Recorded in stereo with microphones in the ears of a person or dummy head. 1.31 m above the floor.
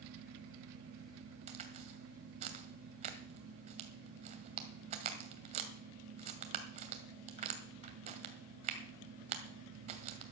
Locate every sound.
1.5 s a crack: 40° right (ahead or behind), 1.9 m